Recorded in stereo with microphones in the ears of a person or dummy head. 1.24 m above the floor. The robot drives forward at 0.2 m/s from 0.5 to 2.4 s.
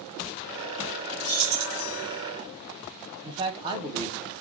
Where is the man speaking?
25° right (ahead or behind), 0.6 m.